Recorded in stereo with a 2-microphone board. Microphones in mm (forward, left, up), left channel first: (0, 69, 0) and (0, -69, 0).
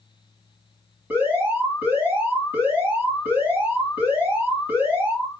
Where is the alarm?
10° right (ahead or behind), 3.5 m.